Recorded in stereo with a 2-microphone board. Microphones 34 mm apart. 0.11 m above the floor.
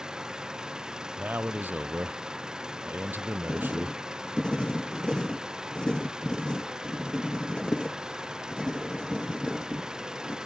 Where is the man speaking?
65° right (ahead or behind).